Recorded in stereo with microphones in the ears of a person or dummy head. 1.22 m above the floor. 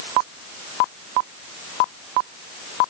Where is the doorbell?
No doorbell in this recording.